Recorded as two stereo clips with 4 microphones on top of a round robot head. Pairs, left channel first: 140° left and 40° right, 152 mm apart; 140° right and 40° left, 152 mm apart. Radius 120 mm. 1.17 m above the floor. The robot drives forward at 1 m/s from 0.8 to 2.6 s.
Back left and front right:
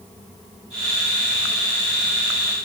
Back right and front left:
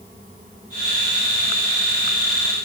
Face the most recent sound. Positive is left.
No sound to turn to.